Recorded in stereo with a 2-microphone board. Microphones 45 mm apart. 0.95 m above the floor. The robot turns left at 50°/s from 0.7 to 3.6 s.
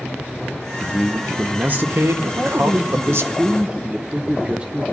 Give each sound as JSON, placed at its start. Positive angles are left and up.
{"t": 0.8, "sound": "a man speaking", "azimuth_deg": 5, "distance_m": 0.9}
{"t": 2.4, "sound": "a man speaking", "azimuth_deg": -75, "distance_m": 0.6}